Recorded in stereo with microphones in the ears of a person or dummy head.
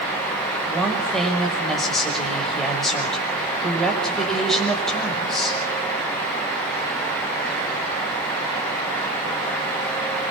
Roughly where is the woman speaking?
Centre.